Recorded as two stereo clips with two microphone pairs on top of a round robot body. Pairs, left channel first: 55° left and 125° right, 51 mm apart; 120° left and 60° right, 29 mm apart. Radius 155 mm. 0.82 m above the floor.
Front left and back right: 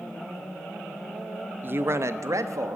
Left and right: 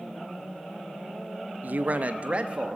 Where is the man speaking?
75° right, 0.8 m; by 2.8 s 120° right, 1.3 m.